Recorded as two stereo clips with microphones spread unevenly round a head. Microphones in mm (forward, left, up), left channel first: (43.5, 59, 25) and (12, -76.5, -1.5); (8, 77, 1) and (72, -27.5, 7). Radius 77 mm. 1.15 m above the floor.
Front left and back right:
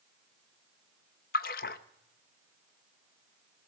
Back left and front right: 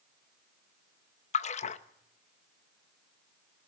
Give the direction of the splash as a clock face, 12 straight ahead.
9 o'clock.